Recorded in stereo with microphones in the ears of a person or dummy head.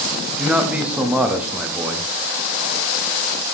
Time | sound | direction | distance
0.4 | a man speaking | 5° right (ahead or behind) | 0.6 m